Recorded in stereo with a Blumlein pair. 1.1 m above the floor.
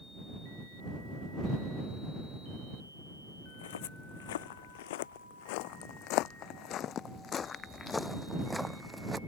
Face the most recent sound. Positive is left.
turn(degrees=-10)